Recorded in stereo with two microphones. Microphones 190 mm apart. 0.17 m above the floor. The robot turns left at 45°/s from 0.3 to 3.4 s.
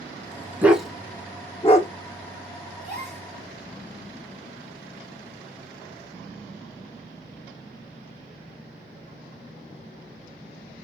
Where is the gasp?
40° right (ahead or behind), 2 m; by 3.3 s 30° right (ahead or behind), 2 m.